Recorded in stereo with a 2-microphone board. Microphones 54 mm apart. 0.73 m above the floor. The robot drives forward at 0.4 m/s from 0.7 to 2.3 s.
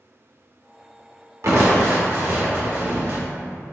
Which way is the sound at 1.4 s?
70° right (ahead or behind).